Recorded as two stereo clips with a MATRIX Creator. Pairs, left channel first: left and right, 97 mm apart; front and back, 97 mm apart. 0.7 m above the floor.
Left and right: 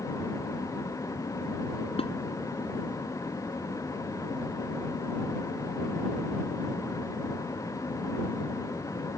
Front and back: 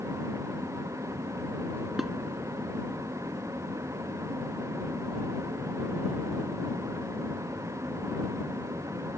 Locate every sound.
2.0 s dishes clattering: 90° left